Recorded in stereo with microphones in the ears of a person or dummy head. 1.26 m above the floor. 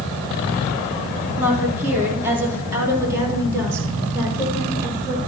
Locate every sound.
1.4 s a woman speaking: 5° right (ahead or behind), 3.5 m; by 5.2 s 15° right (ahead or behind), 6.5 m